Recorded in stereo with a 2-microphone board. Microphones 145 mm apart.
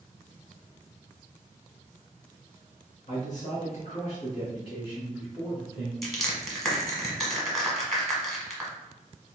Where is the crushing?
Centre (ahead or behind), 1.2 m.